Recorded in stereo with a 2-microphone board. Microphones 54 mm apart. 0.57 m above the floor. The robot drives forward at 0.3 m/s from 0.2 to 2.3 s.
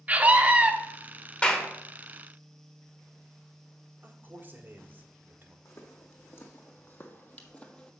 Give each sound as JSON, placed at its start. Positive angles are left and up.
{"t": 0.1, "sound": "a scream", "side_deg": -30, "distance_m": 0.9}
{"t": 1.4, "sound": "a clap", "side_deg": 20, "distance_m": 1.2}
{"t": 4.0, "sound": "a man speaking", "side_deg": -35, "distance_m": 1.7}
{"t": 5.7, "sound": "footsteps", "side_deg": 55, "distance_m": 1.9}